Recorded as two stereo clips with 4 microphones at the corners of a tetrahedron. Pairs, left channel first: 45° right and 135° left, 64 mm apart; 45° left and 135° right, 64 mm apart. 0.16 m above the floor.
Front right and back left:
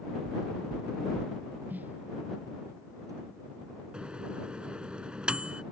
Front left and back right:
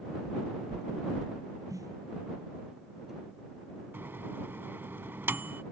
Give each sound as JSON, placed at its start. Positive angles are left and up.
{"t": 0.2, "sound": "knocking", "azimuth_deg": -170}
{"t": 1.7, "sound": "a snare drum", "azimuth_deg": -160}
{"t": 3.9, "sound": "a microwave", "azimuth_deg": -160}